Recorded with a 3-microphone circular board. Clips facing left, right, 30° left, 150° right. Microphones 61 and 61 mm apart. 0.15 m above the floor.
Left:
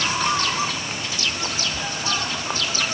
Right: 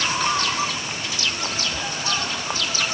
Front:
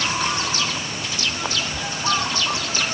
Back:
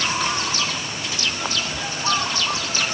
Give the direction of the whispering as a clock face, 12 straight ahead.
12 o'clock.